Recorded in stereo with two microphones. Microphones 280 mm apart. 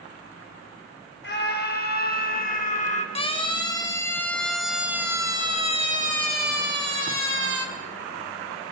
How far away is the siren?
About 3.5 m.